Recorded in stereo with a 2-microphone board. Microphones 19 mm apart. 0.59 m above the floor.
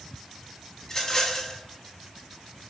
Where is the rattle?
30° left (ahead or behind), 1.0 m.